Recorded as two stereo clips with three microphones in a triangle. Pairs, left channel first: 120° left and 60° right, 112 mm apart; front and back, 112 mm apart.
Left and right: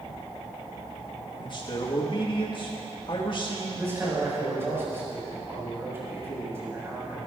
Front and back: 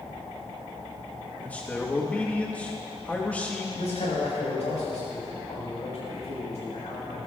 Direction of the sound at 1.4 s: 75° left.